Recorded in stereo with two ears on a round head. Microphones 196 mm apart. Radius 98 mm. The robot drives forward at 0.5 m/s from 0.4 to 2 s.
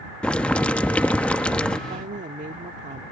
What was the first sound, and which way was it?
Boiling, 5° left (ahead or behind).